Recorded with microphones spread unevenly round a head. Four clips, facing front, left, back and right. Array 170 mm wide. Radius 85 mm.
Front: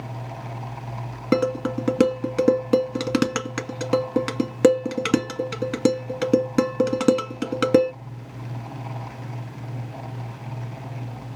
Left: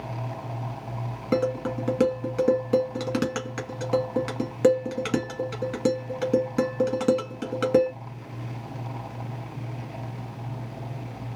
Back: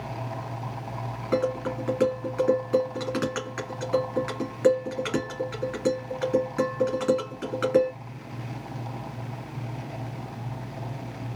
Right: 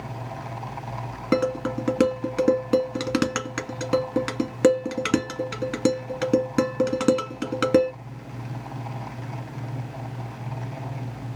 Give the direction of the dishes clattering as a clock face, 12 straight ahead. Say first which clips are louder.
Right 2 dB, front 4 dB; 1 o'clock.